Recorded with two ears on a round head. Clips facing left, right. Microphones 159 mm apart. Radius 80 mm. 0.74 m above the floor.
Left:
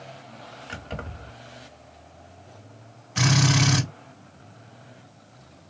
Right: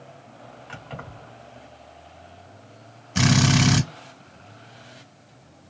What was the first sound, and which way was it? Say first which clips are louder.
Keys jangling: left 3 dB; 40° left (ahead or behind).